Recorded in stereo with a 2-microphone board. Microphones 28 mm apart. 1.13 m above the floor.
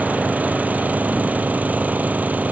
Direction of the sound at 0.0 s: 90° right.